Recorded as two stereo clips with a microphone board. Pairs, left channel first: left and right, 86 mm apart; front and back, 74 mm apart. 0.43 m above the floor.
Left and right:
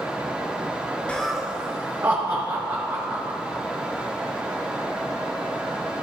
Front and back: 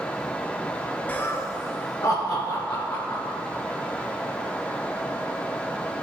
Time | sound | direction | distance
1.1 | laughter | 35° left | 0.8 m